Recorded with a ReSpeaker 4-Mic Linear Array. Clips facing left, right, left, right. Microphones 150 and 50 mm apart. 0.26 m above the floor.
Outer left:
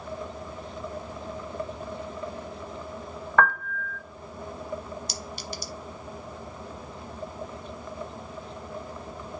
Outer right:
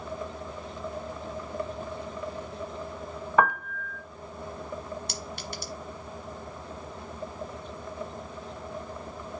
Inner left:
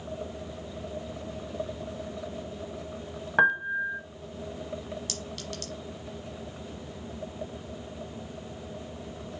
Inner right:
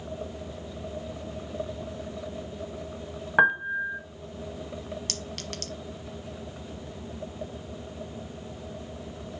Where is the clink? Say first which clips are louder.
Outer left 1 dB, inner right 1 dB; 60° right (ahead or behind), 1.1 m.